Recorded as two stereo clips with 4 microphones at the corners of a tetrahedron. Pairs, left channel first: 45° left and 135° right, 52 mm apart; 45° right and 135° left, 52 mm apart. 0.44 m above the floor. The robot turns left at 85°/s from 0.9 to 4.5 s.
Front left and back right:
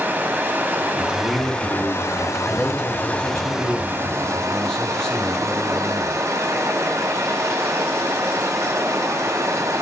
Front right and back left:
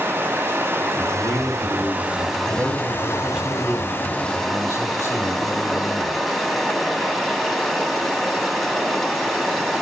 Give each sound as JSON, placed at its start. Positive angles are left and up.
{"t": 0.0, "sound": "running water", "azimuth_deg": 170, "distance_m": 2.5}
{"t": 1.1, "sound": "a man speaking", "azimuth_deg": -15, "distance_m": 5.0}
{"t": 2.5, "sound": "a man speaking", "azimuth_deg": 140, "distance_m": 2.0}